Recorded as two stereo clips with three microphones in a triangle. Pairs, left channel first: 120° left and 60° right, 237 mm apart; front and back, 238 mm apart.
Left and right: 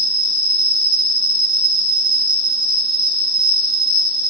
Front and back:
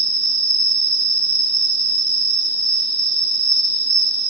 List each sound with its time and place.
0.0 s an insect: 115° right, 1.3 m